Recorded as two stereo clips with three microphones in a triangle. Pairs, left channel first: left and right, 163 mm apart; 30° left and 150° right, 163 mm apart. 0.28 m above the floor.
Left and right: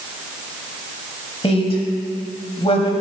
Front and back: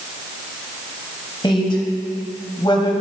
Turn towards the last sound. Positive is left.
turn(degrees=70)